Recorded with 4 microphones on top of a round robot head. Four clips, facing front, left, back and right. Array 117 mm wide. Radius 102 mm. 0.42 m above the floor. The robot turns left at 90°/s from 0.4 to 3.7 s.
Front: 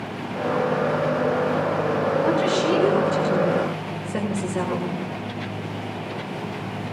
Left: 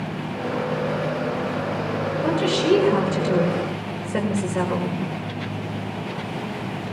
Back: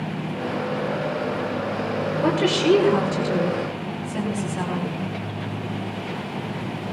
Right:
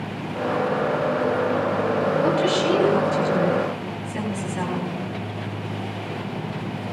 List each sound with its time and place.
2.2 s a woman speaking: 170° right, 8 m; by 5.0 s 55° left, 8 m